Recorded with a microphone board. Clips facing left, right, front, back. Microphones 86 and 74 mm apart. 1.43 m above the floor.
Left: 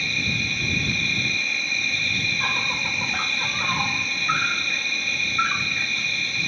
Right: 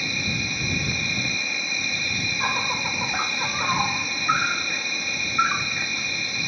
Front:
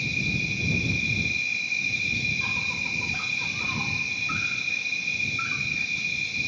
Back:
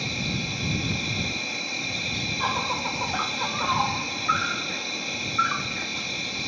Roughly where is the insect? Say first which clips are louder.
Left 1 dB, front 1 dB; behind.